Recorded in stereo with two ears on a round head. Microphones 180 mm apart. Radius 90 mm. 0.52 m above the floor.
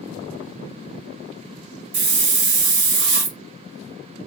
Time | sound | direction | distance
1.9 | a hiss | 55° right (ahead or behind) | 1.6 m